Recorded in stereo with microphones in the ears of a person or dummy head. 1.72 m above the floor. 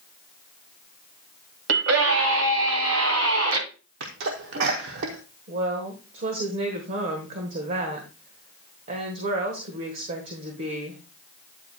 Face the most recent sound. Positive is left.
turn(degrees=-40)  # may be behind; listen again after turning